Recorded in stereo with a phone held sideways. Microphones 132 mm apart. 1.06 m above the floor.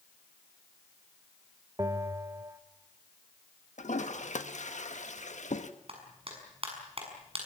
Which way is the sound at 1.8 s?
25° right (ahead or behind).